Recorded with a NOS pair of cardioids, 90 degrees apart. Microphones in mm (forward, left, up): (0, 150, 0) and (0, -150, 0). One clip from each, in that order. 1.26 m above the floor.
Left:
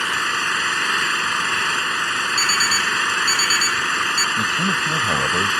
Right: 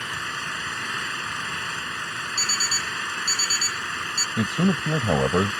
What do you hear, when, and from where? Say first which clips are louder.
0.0 s an engine running: left 9 dB; 60° left
2.4 s an alarm clock: left 4 dB; 40° left
4.4 s a man speaking: left 6 dB; 40° right